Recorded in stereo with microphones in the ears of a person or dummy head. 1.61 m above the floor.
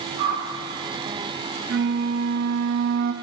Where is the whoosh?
50° right (ahead or behind), 1.3 m.